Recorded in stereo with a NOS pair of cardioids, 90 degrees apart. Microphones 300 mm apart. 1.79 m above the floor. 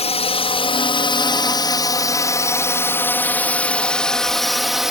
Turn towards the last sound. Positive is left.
turn(degrees=0)